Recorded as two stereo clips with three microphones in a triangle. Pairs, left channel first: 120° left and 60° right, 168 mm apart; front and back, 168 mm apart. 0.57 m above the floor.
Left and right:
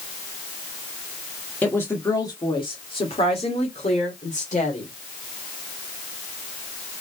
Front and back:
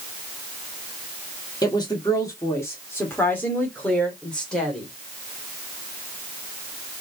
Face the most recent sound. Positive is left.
turn(degrees=85)